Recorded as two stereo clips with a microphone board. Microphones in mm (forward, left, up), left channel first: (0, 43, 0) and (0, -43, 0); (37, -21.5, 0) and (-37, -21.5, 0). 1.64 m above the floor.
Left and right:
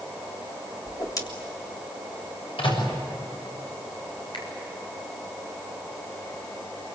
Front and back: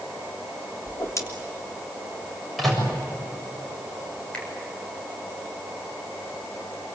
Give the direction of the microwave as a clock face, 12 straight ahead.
9 o'clock.